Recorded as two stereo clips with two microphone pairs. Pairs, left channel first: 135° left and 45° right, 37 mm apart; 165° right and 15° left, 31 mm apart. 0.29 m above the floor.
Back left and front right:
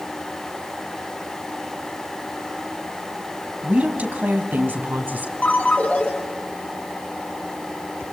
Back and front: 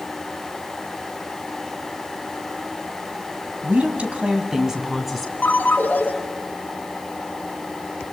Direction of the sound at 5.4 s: Straight behind.